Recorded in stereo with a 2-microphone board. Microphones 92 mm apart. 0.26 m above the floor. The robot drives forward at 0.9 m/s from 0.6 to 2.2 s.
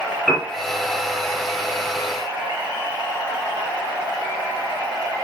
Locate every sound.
0.3 s a piano: centre (ahead or behind), 5 m